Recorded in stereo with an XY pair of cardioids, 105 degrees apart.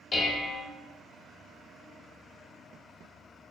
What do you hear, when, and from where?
0.1 s dishes clattering: 45° left, 1.1 m